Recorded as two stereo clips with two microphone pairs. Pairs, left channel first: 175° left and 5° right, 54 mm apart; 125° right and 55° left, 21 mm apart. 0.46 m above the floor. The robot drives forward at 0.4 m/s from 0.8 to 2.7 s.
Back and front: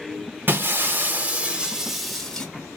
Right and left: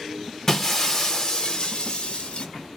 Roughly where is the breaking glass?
Ahead right.